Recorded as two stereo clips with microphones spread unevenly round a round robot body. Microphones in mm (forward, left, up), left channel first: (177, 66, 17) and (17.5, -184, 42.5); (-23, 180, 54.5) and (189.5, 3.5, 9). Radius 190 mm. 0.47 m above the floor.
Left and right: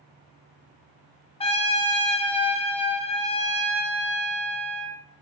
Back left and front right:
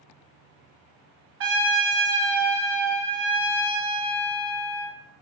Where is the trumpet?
10° right, 0.5 m.